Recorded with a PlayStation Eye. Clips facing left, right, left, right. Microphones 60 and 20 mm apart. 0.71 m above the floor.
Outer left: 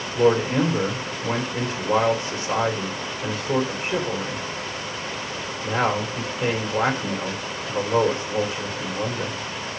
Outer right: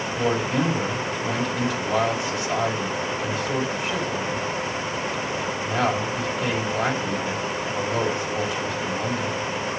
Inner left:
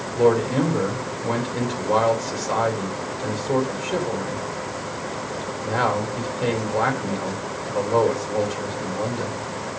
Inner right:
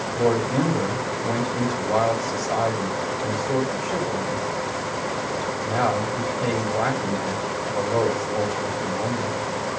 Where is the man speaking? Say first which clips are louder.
Outer left 5 dB, inner left 3 dB; 35° left (ahead or behind), 3 m.